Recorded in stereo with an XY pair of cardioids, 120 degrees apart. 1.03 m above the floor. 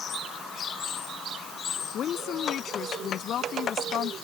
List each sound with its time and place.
1.9 s a woman speaking: 55° left; by 4.2 s 60° left